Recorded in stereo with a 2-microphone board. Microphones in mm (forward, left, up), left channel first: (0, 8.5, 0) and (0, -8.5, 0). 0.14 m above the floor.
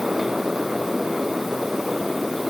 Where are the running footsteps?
I don't hear running footsteps.